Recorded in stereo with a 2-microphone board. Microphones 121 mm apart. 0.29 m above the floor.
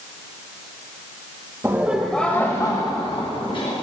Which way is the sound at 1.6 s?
25° right (ahead or behind).